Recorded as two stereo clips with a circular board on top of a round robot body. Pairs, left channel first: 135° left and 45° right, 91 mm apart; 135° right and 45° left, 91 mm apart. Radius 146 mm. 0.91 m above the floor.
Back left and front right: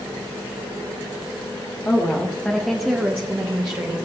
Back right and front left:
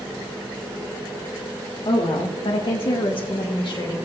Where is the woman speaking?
160° right, 1.6 m; by 4.0 s 85° right, 1.5 m.